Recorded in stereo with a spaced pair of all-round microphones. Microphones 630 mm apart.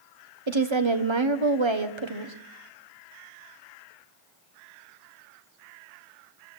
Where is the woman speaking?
45° right (ahead or behind), 1.3 m.